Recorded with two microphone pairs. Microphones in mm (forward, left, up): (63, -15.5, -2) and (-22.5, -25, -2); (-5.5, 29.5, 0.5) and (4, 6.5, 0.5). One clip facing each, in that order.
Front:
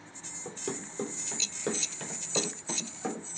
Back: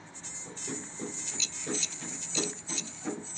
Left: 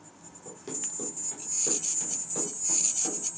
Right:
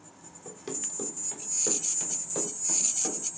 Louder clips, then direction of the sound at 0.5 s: Front 3 dB, right 1 dB; 5° left.